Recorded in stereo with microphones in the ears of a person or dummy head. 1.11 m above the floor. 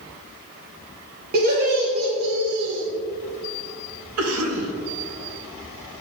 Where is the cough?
80° right, 1.2 m.